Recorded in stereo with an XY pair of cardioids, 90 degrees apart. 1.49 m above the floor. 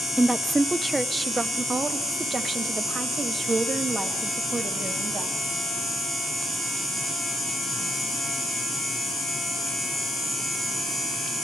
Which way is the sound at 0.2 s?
15° right.